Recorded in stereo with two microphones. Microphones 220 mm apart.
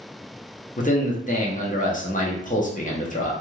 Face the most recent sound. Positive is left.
turn(degrees=35)  # may be behind; listen again after turning